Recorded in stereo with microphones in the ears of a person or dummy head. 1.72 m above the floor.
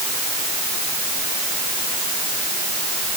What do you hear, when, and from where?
Only background noise.